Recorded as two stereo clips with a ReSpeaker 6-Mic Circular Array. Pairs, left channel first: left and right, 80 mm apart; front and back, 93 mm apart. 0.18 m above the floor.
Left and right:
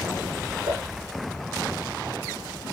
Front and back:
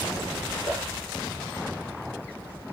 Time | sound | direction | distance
0.7 | dishes clattering | 85° right | 1.2 m